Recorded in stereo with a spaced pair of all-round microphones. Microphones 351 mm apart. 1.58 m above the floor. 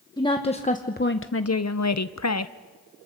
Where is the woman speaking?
10° left (ahead or behind), 1.2 m; by 2.5 s 45° left (ahead or behind), 0.9 m.